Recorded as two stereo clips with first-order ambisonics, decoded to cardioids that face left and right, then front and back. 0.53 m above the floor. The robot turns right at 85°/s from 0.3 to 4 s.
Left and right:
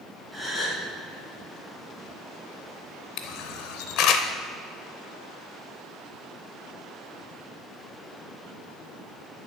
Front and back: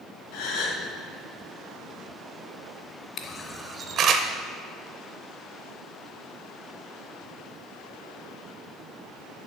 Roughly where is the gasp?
Ahead.